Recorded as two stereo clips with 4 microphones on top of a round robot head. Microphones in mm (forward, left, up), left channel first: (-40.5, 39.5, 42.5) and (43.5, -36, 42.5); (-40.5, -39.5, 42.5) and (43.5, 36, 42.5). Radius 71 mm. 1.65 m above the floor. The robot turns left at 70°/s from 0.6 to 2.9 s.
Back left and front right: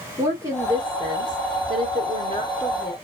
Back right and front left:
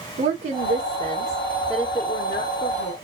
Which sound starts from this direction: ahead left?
A woman speaking, at 0.2 s.